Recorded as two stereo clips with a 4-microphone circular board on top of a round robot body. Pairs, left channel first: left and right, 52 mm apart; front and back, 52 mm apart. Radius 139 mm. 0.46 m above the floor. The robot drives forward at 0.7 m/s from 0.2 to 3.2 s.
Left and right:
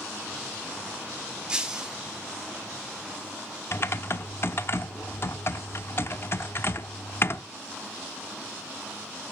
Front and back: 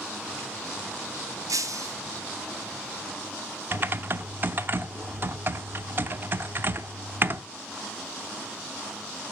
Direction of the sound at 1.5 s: 165° right.